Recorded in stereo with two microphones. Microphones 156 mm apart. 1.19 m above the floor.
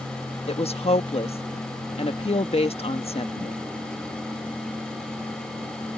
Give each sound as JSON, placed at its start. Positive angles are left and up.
{"t": 0.5, "sound": "a woman speaking", "side_deg": 45}